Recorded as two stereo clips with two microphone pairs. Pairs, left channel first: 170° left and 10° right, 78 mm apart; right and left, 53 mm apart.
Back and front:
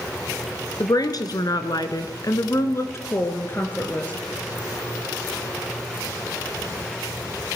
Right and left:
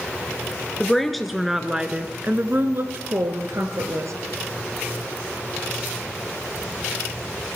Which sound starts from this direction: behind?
A woman speaking, at 0.8 s.